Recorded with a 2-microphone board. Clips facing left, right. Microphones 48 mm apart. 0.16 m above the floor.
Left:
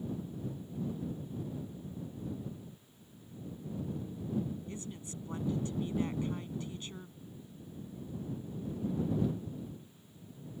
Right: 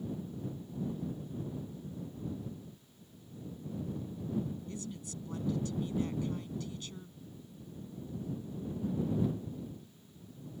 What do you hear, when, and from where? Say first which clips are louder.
4.7 s a woman speaking: right 1 dB; 25° left (ahead or behind)